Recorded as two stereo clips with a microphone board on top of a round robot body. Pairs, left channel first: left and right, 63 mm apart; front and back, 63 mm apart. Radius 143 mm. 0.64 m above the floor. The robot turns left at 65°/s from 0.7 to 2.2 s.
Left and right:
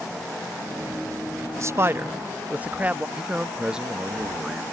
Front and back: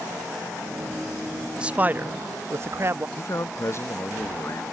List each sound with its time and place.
1.6 s a man speaking: 110° right; by 3.1 s 150° right
3.2 s a man speaking: 15° right